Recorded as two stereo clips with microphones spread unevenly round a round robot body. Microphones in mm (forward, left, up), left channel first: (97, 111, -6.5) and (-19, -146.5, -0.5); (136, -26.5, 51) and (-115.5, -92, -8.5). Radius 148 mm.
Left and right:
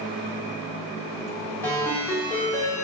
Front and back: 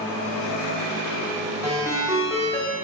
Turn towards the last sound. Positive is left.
turn(degrees=140)